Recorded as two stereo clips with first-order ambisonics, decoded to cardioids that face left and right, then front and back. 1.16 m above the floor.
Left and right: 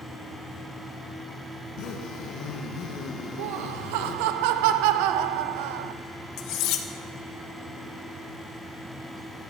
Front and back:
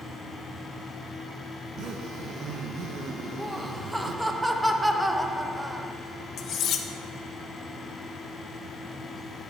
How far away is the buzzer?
I don't hear a buzzer.